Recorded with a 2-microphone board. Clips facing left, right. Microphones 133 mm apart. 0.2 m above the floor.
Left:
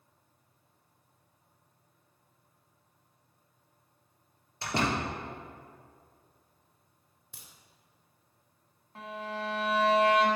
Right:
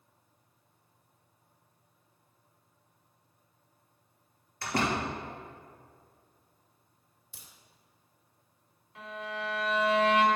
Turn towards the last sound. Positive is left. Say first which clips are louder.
# left 1 dB
turn(degrees=35)  # may be behind; listen again after turning